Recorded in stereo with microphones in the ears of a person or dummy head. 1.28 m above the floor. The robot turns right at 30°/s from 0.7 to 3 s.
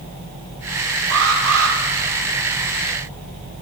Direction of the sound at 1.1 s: 60° right (ahead or behind).